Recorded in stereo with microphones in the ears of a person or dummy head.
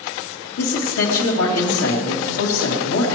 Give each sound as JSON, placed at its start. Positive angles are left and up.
{"t": 0.6, "sound": "a man speaking", "side_deg": 80, "distance_m": 2.5}